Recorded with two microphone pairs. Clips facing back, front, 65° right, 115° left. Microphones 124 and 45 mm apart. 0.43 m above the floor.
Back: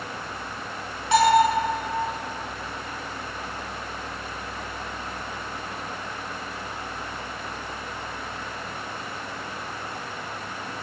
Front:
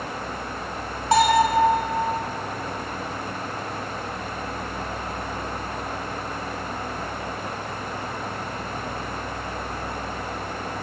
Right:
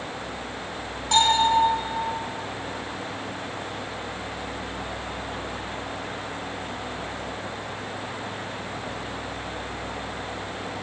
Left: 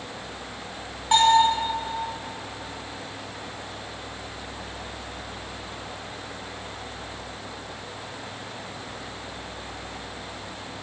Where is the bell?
45° left, 2.0 m.